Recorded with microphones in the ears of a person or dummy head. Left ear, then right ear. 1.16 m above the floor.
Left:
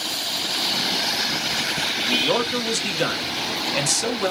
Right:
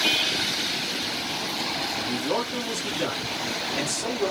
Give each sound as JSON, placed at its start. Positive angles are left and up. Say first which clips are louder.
{"t": 2.0, "sound": "a man speaking", "louder": "left 6 dB", "side_deg": 40, "distance_m": 0.8}